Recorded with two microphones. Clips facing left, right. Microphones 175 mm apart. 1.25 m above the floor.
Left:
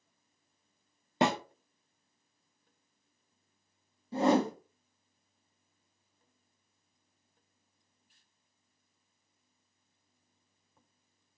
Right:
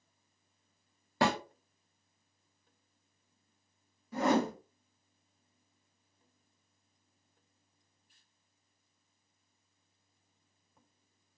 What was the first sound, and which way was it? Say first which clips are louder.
A snare drum: left 1 dB; 20° left (ahead or behind).